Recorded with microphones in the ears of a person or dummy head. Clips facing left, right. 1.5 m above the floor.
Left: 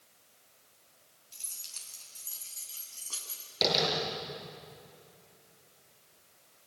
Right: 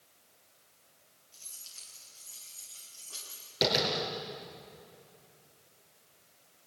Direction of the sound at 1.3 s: 80° left.